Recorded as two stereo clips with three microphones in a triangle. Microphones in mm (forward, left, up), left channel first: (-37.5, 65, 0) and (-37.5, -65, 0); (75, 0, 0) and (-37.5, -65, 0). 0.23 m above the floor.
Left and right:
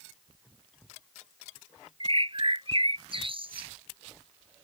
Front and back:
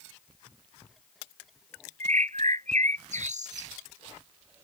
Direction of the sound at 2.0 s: 135° right.